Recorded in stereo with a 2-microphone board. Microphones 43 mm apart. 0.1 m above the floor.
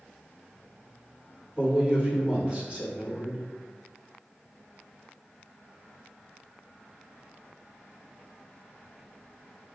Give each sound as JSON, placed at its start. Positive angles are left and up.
{"t": 1.6, "sound": "a man speaking", "side_deg": -25, "distance_m": 1.8}